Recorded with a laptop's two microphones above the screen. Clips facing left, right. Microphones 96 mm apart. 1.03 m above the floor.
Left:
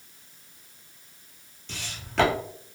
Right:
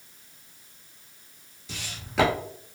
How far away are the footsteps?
About 1.1 m.